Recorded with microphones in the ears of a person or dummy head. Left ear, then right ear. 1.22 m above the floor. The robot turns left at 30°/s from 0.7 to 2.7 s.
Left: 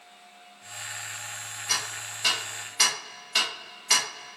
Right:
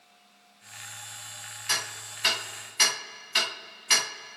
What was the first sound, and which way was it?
Ticking, 40° right (ahead or behind).